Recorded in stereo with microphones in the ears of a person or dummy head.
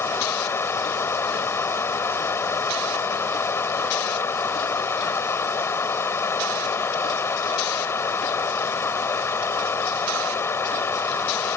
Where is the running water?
10° left (ahead or behind).